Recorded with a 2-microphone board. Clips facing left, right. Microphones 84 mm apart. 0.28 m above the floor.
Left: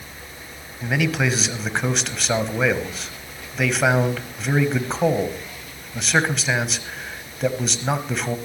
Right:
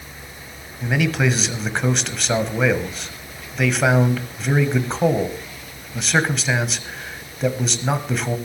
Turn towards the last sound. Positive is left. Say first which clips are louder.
# right 2 dB
turn(degrees=0)  # may be behind; listen again after turning